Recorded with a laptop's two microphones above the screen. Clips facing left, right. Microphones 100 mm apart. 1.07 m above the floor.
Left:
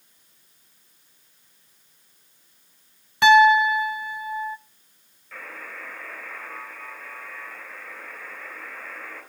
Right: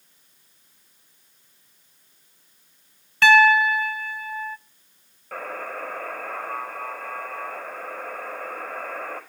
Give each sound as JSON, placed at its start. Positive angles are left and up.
{"t": 3.2, "sound": "a piano", "side_deg": 15, "distance_m": 0.6}
{"t": 5.3, "sound": "a buzzer", "side_deg": -55, "distance_m": 4.0}